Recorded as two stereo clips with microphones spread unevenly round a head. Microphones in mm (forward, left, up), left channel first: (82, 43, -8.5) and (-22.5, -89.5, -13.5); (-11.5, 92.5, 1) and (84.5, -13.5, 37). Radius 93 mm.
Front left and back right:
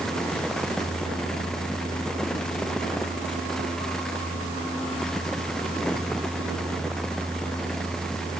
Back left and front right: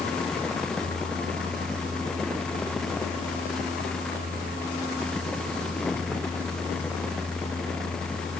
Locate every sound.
Only background noise.